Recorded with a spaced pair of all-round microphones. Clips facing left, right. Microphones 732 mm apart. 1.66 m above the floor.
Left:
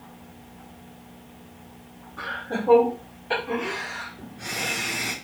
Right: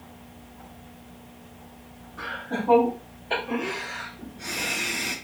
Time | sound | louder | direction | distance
2.2 | laughter | left 1 dB | 85° left | 3 m